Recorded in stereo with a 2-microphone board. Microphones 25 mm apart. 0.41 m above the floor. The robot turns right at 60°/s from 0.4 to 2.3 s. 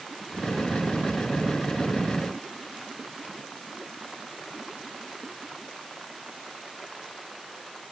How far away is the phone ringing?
No phone ringing in this recording.